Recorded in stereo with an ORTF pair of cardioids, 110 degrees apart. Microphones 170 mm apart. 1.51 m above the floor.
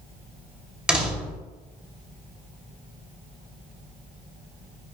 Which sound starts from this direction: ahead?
A door slam, at 0.9 s.